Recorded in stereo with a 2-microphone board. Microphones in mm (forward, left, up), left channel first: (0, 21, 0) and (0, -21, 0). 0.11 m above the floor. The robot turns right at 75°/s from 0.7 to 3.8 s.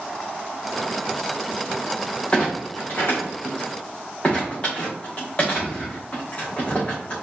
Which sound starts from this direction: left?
A clunk, at 2.3 s.